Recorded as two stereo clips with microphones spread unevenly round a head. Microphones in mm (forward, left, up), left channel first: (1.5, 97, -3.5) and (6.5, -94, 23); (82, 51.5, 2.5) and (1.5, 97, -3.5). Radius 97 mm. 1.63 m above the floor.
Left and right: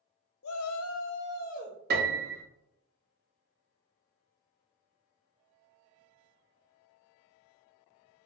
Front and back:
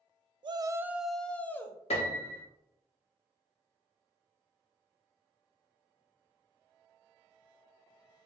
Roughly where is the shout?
Behind left.